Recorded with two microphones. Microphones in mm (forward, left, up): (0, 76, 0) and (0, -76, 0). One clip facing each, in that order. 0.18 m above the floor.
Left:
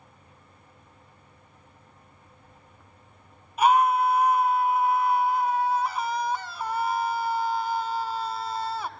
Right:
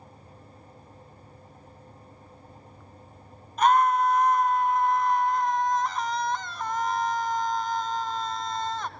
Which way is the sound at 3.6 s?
10° left (ahead or behind).